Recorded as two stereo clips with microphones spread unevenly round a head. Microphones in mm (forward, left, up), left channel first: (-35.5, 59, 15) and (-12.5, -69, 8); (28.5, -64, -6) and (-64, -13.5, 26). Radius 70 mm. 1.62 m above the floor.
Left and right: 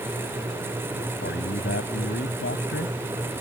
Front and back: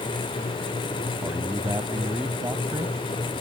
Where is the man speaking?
80° left.